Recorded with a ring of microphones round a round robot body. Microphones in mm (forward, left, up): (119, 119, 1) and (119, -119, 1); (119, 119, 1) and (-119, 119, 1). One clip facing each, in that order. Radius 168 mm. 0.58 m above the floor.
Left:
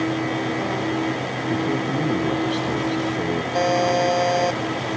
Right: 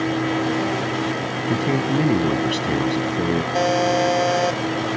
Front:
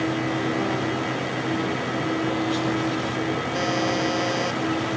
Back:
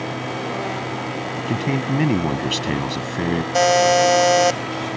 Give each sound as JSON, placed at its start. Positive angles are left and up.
{"t": 1.4, "sound": "a man speaking", "azimuth_deg": -155}
{"t": 3.5, "sound": "a buzzer", "azimuth_deg": -175}